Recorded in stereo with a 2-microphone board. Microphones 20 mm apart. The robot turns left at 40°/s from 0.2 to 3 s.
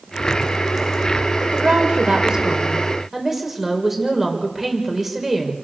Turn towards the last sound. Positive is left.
turn(degrees=-160)